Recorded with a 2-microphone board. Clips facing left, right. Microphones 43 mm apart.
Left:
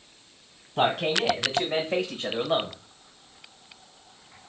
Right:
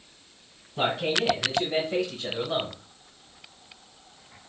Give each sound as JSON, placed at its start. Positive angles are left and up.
{"t": 0.8, "sound": "a man speaking", "side_deg": 35, "distance_m": 1.4}